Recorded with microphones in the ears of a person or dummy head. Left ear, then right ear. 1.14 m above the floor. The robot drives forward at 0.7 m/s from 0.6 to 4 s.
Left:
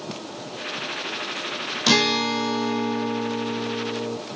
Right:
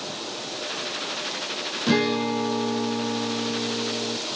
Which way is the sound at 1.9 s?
40° left (ahead or behind).